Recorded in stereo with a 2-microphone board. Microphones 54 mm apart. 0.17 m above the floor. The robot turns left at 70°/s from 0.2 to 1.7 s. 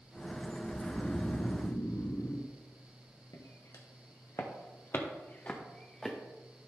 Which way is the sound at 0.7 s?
160° left.